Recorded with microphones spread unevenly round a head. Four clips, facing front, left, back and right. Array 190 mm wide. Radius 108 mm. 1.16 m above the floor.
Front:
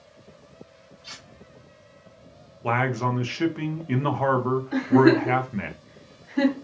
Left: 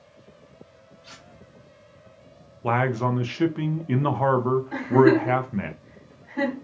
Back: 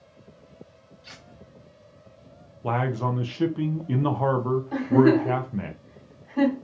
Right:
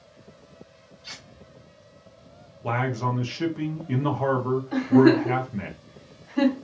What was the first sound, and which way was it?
Cutlery clinking, 130° right.